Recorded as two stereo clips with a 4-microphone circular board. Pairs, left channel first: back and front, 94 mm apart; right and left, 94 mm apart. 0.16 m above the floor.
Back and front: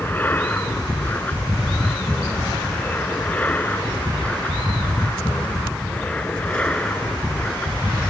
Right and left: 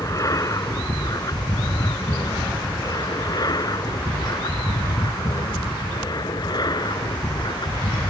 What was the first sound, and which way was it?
An aircraft, 120° right.